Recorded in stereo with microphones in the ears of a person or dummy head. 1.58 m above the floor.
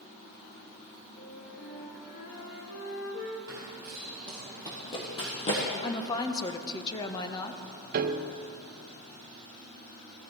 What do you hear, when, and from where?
1.2 s a flute: 45° left (ahead or behind), 2.5 m
3.5 s running footsteps: 15° right (ahead or behind), 2.5 m; by 5.7 s 40° left (ahead or behind), 3.5 m
5.8 s a woman speaking: 20° left (ahead or behind), 1.1 m
7.9 s a piano: 50° right (ahead or behind), 0.8 m